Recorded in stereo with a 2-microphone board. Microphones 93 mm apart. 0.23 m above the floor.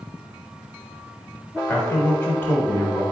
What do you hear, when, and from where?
1.7 s a man speaking: 20° left (ahead or behind), 0.9 m